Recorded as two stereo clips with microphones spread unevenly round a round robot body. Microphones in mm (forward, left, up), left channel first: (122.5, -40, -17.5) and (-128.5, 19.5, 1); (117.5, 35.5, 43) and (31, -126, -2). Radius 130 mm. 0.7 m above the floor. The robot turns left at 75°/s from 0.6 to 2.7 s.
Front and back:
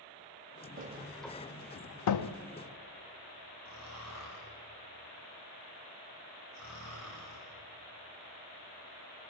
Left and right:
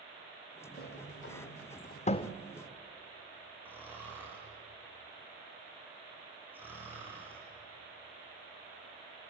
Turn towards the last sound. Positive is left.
turn(degrees=-40)